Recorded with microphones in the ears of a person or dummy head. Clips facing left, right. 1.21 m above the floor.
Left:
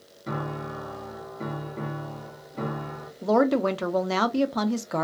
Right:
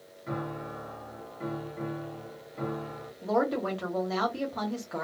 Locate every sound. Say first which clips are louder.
0.3 s a piano: left 3 dB; 60° left (ahead or behind), 0.9 m
3.2 s a woman speaking: left 6 dB; 70° left (ahead or behind), 0.6 m